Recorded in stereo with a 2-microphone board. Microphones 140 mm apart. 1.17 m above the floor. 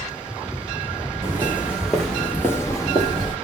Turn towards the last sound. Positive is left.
turn(degrees=40)  # may be behind; listen again after turning